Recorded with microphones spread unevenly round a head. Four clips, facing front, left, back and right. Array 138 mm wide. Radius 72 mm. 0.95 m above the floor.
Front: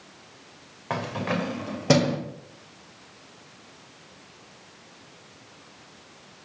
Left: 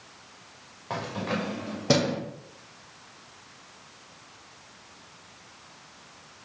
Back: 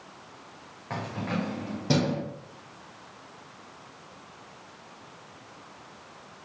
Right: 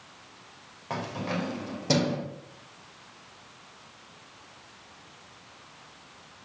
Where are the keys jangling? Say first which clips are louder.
Left 1 dB, front 4 dB; 5° left, 2 m; by 2.2 s 20° left, 3 m.